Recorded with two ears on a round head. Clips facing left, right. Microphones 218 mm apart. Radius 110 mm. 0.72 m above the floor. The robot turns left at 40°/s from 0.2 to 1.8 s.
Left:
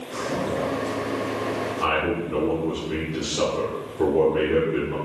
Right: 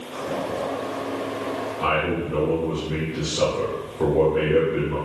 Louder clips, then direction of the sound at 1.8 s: Right 2 dB; 40° left (ahead or behind).